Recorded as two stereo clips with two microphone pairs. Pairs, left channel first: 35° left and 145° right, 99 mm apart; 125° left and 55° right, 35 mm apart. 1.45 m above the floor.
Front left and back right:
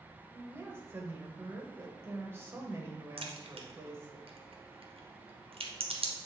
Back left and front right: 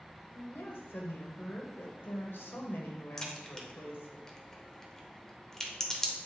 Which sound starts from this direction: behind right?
A crack, at 3.2 s.